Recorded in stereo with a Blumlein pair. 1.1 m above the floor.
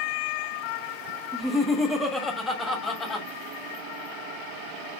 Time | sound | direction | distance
1.3 | laughter | 15° right | 1.2 m